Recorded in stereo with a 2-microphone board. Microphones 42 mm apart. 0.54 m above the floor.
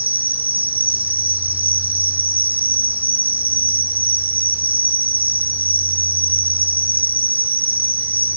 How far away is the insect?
About 1.6 m.